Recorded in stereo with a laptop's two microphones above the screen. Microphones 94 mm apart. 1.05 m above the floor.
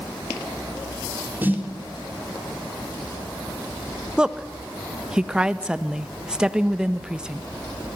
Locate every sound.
1.4 s a snare drum: 20° right (ahead or behind), 4.5 m
4.2 s a woman speaking: 10° right (ahead or behind), 1.2 m